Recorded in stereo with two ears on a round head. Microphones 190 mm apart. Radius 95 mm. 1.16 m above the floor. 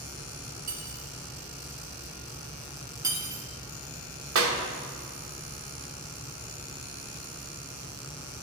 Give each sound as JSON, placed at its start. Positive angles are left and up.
{"t": 0.7, "sound": "cutlery clinking", "side_deg": -40, "distance_m": 1.5}
{"t": 3.0, "sound": "cutlery clinking", "side_deg": -15, "distance_m": 1.1}
{"t": 4.3, "sound": "a clap", "side_deg": -70, "distance_m": 0.9}